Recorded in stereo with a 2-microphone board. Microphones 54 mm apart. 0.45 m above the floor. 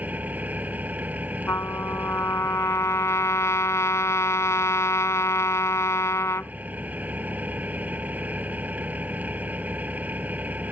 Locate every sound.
0.0 s an engine running: 30° right (ahead or behind)
1.5 s a trumpet: 65° left (ahead or behind)